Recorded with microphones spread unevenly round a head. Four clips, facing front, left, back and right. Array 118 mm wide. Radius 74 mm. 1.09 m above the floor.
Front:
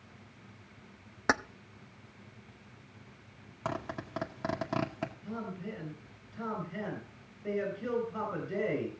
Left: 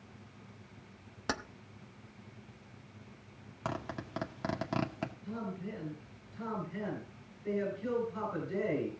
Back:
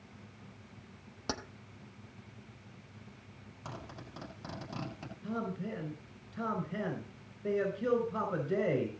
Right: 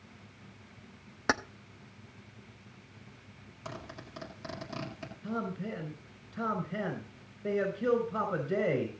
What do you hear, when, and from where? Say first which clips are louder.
1.3 s keys jangling: right 7 dB, front 10 dB; 35° right, 0.7 m
3.6 s a zipper: left 5 dB, front 10 dB; 20° left, 2 m
5.2 s a man speaking: right 5 dB, back 2 dB; 95° right, 5 m